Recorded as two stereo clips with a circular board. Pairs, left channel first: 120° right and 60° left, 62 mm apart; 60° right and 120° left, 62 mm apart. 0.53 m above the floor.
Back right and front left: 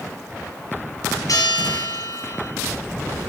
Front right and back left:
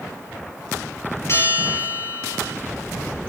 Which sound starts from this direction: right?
A bell, at 1.3 s.